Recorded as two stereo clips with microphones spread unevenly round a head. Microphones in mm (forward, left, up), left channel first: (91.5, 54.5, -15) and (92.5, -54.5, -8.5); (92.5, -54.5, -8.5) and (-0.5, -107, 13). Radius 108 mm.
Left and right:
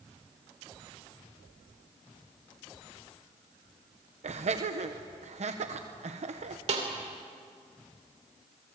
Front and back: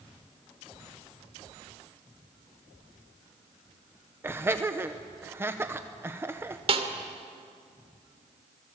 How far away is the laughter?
About 1.1 m.